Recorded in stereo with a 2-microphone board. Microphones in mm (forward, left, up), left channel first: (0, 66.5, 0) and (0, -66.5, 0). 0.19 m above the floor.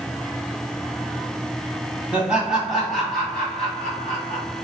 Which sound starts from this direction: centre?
Laughter, at 2.1 s.